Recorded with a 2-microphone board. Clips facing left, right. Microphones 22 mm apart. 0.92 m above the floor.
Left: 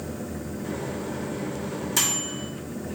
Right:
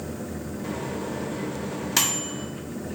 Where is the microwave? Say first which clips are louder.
Right 1 dB; 30° right (ahead or behind), 1.0 m.